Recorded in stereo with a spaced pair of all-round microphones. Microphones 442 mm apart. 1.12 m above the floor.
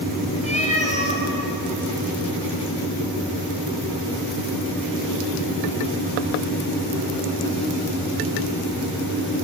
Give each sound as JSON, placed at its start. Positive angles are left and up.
{"t": 0.4, "sound": "a cat meowing", "side_deg": 15, "distance_m": 4.0}